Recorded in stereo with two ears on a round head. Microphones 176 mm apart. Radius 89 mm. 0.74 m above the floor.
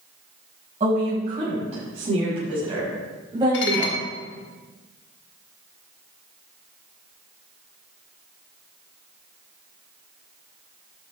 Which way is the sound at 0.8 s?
40° right (ahead or behind).